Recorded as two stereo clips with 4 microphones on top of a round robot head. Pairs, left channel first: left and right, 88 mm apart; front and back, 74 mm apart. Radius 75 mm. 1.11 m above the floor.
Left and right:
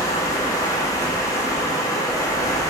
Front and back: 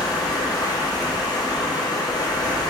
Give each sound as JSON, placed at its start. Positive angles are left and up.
{"t": 0.0, "sound": "running water", "azimuth_deg": 35, "distance_m": 1.5}